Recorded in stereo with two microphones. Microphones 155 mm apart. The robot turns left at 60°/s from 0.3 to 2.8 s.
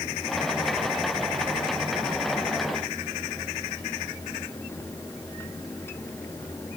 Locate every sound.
Only background noise.